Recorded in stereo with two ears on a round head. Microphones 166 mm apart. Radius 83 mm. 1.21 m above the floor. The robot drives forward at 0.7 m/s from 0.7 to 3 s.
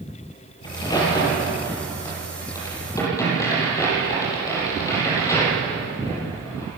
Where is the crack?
25° left (ahead or behind), 6.5 m; by 6.7 s 20° left (ahead or behind), 8 m.